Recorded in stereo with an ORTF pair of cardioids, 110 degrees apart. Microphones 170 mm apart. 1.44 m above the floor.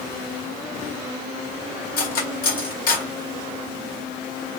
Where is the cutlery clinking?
60° left, 2.0 m.